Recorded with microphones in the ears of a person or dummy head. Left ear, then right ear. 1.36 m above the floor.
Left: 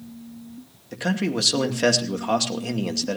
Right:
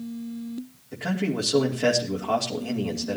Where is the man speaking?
80° left, 2.5 m.